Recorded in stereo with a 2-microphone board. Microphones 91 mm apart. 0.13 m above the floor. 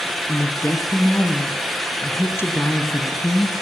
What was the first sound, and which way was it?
A woman speaking, 30° left (ahead or behind).